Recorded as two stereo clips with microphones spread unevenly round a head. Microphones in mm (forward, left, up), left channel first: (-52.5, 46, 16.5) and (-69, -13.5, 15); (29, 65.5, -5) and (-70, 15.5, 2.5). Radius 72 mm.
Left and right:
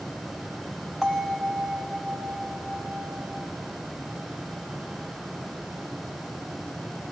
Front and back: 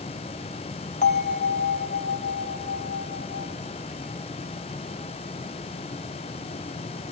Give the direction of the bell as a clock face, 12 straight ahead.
1 o'clock.